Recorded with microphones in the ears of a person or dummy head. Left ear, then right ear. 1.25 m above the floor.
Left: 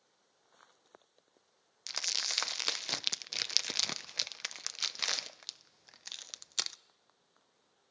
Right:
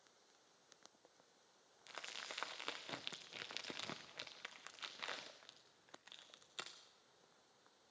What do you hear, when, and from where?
1.9 s crumpling: 70° left (ahead or behind), 0.5 m